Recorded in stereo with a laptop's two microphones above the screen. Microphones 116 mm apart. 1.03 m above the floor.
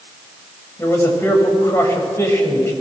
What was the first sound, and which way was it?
A man speaking, 20° left (ahead or behind).